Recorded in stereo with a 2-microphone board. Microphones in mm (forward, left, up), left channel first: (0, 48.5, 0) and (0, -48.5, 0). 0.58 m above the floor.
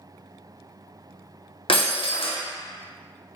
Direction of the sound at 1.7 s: 65° left (ahead or behind).